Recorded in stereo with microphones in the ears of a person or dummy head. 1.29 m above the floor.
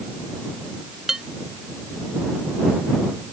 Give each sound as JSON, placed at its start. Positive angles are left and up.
{"t": 1.1, "sound": "dishes clattering", "side_deg": 0}